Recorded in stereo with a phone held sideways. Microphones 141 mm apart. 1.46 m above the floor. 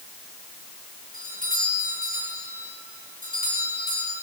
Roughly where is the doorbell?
Right.